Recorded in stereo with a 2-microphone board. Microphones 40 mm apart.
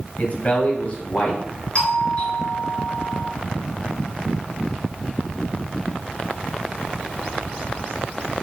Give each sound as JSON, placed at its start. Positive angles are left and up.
{"t": 0.2, "sound": "a man speaking", "side_deg": 40, "distance_m": 2.0}
{"t": 1.8, "sound": "a doorbell", "side_deg": 30, "distance_m": 2.5}